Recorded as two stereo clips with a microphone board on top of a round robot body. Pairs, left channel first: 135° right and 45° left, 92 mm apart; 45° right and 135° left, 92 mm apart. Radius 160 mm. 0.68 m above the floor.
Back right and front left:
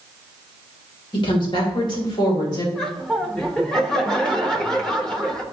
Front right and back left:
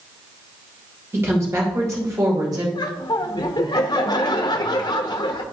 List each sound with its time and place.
1.1 s a woman speaking: 160° right, 2.5 m; by 2.6 s straight behind, 3 m
2.8 s laughter: 55° right, 0.9 m